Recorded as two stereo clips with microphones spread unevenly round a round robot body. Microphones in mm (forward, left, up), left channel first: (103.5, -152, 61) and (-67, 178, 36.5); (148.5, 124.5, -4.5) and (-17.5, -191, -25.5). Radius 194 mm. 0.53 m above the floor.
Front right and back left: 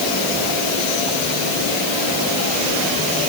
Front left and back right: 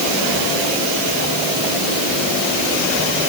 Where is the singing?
I don't hear singing.